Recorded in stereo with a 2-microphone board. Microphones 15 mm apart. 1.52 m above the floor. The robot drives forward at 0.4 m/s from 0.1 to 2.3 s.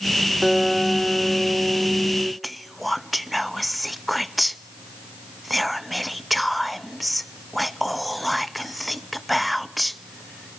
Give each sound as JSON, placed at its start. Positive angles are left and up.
{"t": 0.4, "sound": "a guitar", "side_deg": -35, "distance_m": 2.5}
{"t": 2.4, "sound": "whispering", "side_deg": 0, "distance_m": 0.6}